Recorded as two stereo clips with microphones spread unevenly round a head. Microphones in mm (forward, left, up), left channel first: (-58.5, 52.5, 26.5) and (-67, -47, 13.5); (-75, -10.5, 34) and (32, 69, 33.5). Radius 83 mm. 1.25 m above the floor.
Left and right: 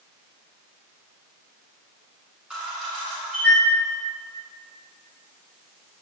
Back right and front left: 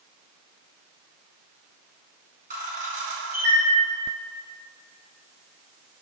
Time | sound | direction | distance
2.5 | a camera shutter | 5° right | 2.5 m